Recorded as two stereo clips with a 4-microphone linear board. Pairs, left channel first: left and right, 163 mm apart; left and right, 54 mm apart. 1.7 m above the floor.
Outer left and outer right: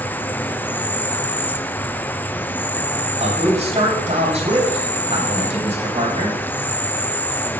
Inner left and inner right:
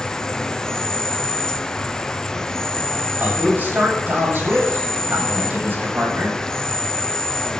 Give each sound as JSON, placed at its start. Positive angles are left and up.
{"t": 0.0, "sound": "an insect", "side_deg": 10, "distance_m": 0.8}
{"t": 3.2, "sound": "a man speaking", "side_deg": -40, "distance_m": 7.5}